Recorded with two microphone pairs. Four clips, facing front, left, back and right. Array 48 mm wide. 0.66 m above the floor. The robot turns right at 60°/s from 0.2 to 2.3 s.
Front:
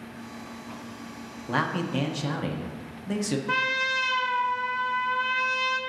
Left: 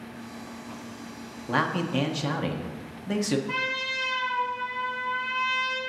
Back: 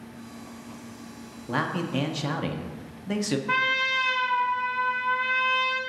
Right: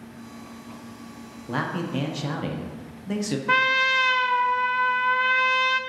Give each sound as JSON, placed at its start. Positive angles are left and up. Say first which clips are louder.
{"t": 1.5, "sound": "a man speaking", "louder": "left 2 dB, front 1 dB", "azimuth_deg": 85, "distance_m": 0.8}
{"t": 3.5, "sound": "a trumpet", "louder": "right 9 dB, back 2 dB", "azimuth_deg": -85, "distance_m": 0.6}